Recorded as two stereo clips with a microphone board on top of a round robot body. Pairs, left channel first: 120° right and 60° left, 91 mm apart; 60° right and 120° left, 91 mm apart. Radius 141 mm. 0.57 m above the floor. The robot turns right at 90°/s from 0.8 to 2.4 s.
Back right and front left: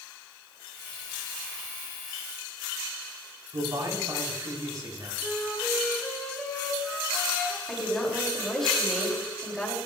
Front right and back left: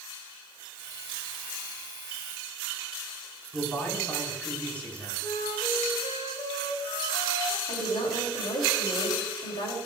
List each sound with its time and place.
3.5 s a man speaking: 15° left, 5 m
5.2 s a flute: 35° right, 3.5 m
7.7 s a woman speaking: 35° right, 3.5 m